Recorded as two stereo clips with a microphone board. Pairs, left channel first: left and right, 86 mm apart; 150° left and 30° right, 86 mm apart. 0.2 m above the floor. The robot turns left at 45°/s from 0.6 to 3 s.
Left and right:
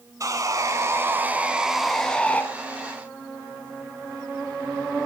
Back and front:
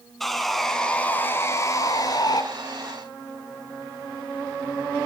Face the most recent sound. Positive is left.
turn(degrees=130)